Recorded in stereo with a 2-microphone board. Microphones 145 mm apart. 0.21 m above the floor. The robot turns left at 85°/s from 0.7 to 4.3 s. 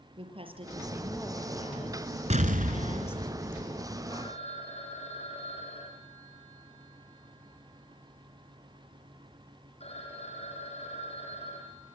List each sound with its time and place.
0.2 s a woman speaking: 140° right, 5.5 m; by 3.3 s straight ahead, 5.5 m
2.3 s an explosion: 60° right, 1.5 m; by 3.6 s 175° right, 1.5 m
4.1 s a phone ringing: 30° left (ahead or behind), 7 m; by 11.9 s 45° left (ahead or behind), 7 m